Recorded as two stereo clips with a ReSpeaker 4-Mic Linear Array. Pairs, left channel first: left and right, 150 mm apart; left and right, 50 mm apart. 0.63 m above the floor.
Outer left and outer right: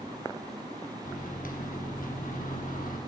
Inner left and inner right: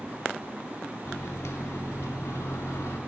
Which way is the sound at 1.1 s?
65° left (ahead or behind).